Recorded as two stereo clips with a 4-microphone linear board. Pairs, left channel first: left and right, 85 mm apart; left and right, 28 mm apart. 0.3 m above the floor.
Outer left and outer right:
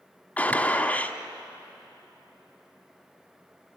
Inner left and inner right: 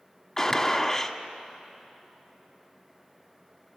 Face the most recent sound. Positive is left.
turn(degrees=20)  # may be behind; listen again after turning